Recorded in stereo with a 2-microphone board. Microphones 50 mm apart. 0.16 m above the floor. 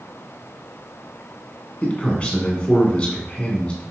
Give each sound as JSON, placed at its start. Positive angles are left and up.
{"t": 1.8, "sound": "a man speaking", "side_deg": 25, "distance_m": 1.1}